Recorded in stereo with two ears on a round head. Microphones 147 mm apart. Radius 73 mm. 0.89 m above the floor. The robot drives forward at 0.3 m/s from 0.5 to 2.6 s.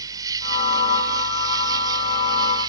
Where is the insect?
25° right (ahead or behind).